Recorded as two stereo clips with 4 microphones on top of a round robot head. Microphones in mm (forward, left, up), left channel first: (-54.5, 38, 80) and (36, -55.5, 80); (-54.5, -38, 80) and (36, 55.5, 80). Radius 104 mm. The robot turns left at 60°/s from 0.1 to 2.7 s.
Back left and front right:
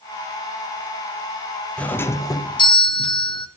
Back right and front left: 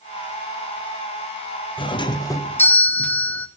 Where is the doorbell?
150° right, 1.4 m; by 3.5 s 155° left, 1.4 m.